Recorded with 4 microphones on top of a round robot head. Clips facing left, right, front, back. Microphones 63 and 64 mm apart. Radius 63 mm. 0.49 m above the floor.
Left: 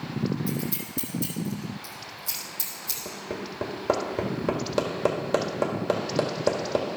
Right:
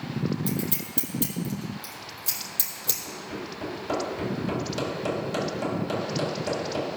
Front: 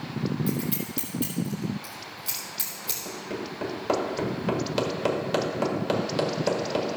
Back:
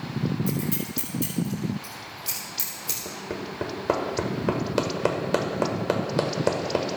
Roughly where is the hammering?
Behind left.